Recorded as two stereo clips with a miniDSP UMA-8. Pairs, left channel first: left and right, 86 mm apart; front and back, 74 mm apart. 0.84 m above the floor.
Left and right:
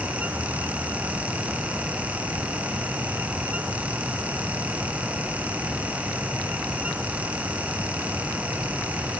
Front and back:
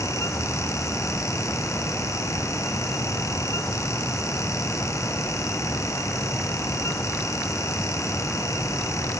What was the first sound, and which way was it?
Only background noise.